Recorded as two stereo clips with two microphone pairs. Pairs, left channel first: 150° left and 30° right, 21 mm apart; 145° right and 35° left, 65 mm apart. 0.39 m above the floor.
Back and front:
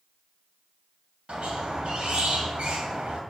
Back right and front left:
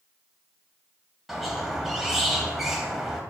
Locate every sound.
1.3 s a squeak: 50° right, 1.6 m